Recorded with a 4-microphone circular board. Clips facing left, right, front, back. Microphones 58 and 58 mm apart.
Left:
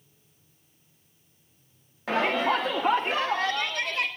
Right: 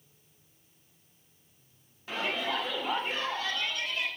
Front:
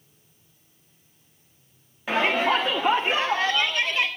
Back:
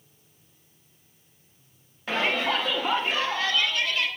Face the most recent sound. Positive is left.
turn(degrees=70)